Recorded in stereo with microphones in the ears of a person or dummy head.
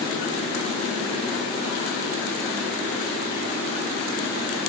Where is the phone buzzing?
No phone buzzing in this recording.